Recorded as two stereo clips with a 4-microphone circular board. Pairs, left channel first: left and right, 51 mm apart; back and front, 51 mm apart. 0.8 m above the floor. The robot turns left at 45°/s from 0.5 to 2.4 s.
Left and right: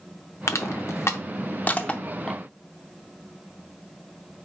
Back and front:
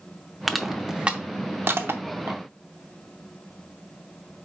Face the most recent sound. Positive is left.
turn(degrees=5)